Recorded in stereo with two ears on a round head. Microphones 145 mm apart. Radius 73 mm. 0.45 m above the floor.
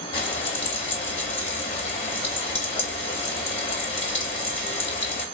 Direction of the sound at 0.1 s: 35° left (ahead or behind).